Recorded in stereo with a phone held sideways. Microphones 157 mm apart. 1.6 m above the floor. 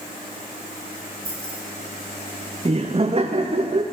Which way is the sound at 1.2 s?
75° left (ahead or behind).